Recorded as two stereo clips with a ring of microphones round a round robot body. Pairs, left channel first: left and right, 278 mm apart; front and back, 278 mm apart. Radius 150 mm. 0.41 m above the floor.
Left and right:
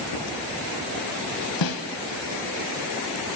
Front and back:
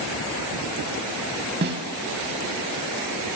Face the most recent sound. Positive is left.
turn(degrees=120)